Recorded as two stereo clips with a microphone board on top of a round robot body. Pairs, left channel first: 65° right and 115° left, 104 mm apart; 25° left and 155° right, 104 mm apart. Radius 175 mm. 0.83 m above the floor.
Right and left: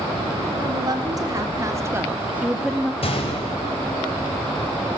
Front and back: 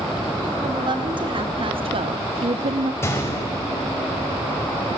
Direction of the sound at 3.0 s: 45° right.